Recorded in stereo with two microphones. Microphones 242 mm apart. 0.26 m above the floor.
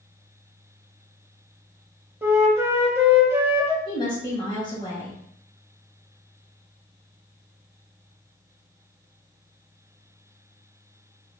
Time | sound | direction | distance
2.2 | a flute | 10° right (ahead or behind) | 0.5 m
3.9 | a woman speaking | 20° left (ahead or behind) | 1.3 m